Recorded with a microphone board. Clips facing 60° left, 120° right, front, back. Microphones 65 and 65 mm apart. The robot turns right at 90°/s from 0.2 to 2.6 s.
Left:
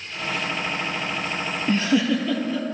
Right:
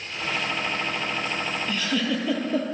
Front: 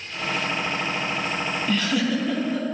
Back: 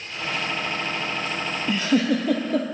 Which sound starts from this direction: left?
A giggle, at 1.7 s.